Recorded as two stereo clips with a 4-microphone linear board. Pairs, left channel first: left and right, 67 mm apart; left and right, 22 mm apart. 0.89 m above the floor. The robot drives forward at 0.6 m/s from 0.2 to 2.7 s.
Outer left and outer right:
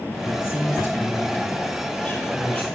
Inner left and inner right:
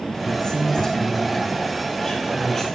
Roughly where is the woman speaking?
Left.